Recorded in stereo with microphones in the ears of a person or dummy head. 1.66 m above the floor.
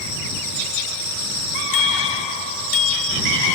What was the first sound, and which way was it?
A bicycle bell, 40° left (ahead or behind).